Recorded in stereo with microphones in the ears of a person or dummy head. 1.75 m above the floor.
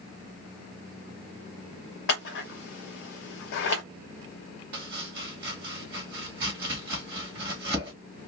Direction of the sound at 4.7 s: 15° right (ahead or behind).